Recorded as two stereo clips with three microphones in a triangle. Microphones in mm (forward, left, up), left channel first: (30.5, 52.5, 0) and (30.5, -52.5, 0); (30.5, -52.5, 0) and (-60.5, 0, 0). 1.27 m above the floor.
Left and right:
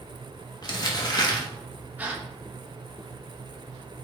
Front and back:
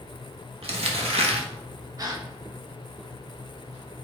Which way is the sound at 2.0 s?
160° right.